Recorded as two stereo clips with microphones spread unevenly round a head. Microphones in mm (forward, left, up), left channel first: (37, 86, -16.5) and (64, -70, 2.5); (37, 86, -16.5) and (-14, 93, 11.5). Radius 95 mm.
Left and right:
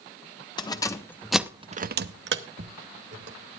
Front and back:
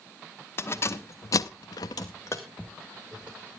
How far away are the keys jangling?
About 1.6 m.